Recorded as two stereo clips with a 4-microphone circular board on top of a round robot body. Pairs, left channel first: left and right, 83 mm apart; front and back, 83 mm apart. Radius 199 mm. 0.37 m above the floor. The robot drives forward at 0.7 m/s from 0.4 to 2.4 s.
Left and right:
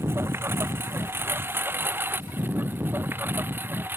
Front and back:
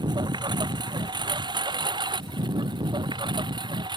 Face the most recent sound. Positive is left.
turn(degrees=-155)